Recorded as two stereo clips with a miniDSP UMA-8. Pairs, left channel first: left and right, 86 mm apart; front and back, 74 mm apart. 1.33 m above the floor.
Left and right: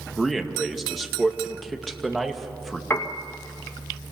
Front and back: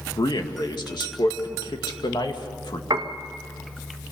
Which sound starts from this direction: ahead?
A man speaking, at 0.2 s.